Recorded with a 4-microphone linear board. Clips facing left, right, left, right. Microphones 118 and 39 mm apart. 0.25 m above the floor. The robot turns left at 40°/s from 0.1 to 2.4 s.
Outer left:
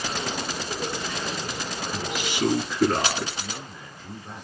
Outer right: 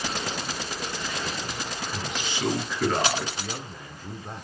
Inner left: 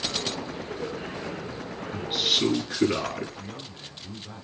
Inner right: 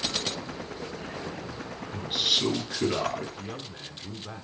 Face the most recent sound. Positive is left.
turn(degrees=-40)  # may be behind; listen again after turning